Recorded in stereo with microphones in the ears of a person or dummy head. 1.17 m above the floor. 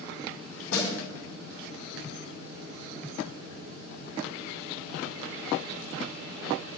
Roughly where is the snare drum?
Left.